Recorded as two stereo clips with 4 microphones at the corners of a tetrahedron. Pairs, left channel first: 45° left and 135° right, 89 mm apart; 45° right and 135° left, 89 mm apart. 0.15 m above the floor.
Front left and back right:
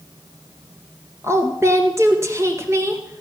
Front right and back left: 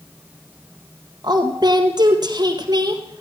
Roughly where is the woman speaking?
Behind.